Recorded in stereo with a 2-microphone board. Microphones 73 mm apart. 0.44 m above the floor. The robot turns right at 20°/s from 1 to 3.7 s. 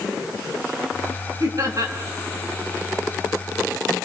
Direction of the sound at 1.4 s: 55° right (ahead or behind).